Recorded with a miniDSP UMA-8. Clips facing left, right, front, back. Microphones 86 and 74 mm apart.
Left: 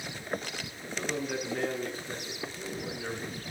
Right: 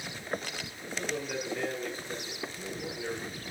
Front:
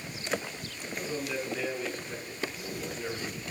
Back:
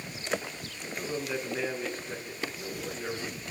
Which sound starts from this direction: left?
A man speaking, at 0.8 s.